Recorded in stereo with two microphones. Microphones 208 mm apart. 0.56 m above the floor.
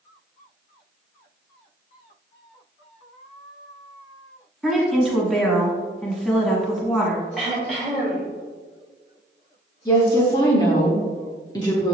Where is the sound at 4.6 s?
Centre (ahead or behind), 1.1 m.